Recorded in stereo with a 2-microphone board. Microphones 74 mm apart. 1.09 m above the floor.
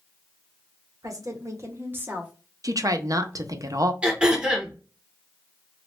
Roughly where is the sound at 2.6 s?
Right.